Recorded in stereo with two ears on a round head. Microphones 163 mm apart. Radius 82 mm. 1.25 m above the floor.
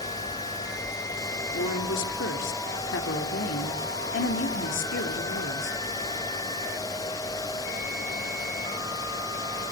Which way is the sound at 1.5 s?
75° left (ahead or behind).